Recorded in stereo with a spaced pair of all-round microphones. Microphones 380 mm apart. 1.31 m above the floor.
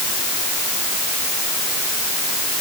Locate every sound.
Only background noise.